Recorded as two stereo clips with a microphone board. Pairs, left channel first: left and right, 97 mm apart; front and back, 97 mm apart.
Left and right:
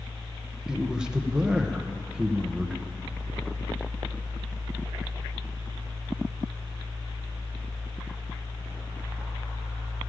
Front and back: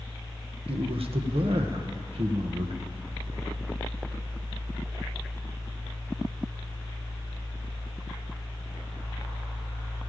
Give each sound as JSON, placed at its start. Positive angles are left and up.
{"t": 0.7, "sound": "a man speaking", "azimuth_deg": -170, "distance_m": 1.2}